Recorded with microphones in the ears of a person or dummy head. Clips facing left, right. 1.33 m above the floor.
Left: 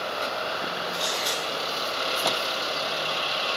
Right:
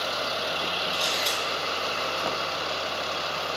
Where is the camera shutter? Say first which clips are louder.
Even; centre (ahead or behind), 5 m.